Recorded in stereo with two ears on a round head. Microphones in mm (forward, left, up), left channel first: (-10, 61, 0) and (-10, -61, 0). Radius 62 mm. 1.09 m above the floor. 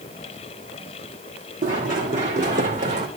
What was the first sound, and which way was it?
Running footsteps, 70° right (ahead or behind).